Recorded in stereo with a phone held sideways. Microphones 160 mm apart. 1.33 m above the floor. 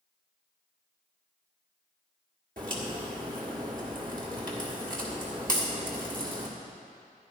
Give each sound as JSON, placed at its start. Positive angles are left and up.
{"t": 2.6, "sound": "a crack", "side_deg": -65, "distance_m": 1.7}